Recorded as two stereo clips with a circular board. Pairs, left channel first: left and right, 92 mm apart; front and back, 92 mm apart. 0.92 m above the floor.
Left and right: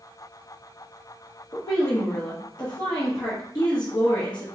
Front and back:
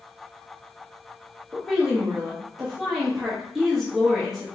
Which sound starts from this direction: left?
A woman speaking, at 1.5 s.